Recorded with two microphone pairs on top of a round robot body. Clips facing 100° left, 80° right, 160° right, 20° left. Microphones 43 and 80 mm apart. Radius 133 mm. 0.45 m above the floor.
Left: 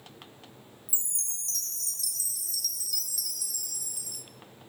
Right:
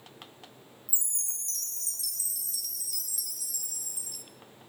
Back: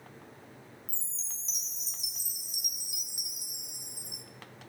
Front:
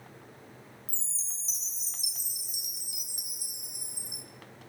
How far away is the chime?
About 1.8 m.